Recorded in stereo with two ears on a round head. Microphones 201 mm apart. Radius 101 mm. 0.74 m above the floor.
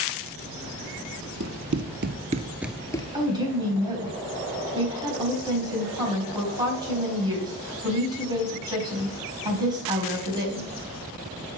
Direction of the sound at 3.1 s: 20° right (ahead or behind).